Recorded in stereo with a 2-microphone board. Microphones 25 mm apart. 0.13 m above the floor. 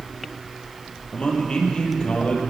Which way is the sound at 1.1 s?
40° left (ahead or behind).